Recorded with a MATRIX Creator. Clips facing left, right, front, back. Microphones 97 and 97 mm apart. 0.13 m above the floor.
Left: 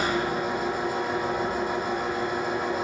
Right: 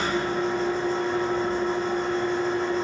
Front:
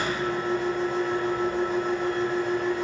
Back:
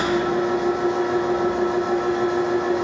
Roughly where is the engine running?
Behind.